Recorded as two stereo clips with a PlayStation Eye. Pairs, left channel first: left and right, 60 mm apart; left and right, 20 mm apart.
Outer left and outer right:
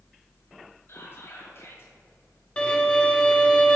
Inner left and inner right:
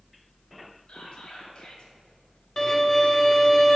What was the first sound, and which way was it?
Whispering, 45° left (ahead or behind).